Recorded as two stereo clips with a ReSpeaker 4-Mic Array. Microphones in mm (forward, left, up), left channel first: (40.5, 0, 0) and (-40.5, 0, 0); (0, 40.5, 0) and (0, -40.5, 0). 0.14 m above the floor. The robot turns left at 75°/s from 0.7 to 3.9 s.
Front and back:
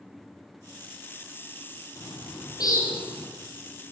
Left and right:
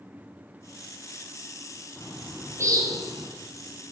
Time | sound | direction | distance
2.0 | a bird | 15° left | 4 m